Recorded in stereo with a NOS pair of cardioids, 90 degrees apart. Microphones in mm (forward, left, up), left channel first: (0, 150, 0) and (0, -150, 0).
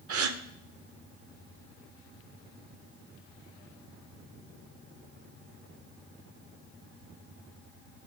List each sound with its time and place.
0.1 s a gasp: 50° right, 0.7 m